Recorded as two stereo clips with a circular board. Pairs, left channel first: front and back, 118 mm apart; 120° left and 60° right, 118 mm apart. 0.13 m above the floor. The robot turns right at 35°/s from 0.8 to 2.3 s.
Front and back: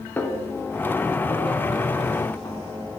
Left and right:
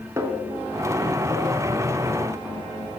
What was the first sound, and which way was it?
A snare drum, 50° right.